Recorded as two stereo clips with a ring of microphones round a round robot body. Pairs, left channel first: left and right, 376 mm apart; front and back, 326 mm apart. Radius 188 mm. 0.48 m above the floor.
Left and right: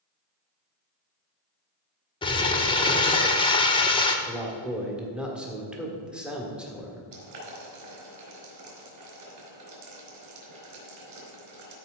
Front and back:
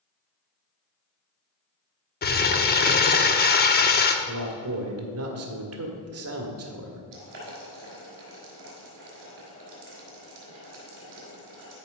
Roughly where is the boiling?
Behind right.